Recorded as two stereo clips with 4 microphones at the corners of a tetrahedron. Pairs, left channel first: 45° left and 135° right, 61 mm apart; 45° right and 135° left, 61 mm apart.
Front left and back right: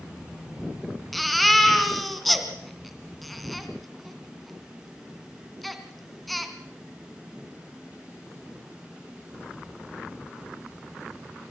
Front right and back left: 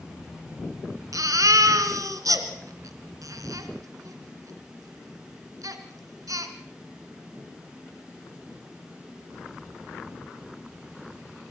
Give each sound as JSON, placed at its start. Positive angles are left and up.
{"t": 1.1, "sound": "a baby crying", "azimuth_deg": 135, "distance_m": 2.0}